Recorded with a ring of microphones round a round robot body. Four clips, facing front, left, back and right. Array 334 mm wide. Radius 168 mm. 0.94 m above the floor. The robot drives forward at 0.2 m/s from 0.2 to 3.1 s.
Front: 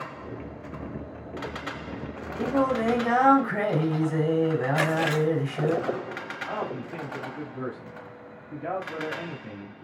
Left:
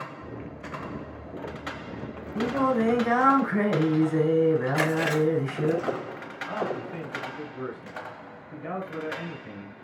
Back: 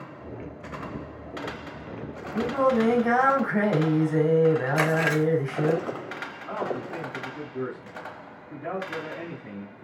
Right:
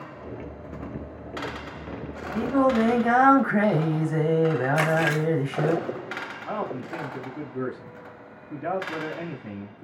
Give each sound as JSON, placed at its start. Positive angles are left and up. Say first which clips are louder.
{"t": 2.3, "sound": "singing", "louder": "right 3 dB, back 2 dB", "azimuth_deg": -105, "distance_m": 3.5}
{"t": 4.8, "sound": "chewing", "louder": "right 1 dB, back 1 dB", "azimuth_deg": -155, "distance_m": 2.5}
{"t": 6.5, "sound": "a man speaking", "louder": "left 1 dB, back 3 dB", "azimuth_deg": -95, "distance_m": 2.0}